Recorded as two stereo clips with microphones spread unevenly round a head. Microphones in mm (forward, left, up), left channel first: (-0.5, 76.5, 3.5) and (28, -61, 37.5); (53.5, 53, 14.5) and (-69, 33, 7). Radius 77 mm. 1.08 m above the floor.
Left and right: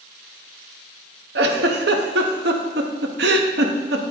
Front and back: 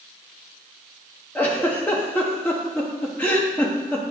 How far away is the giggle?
About 1.0 m.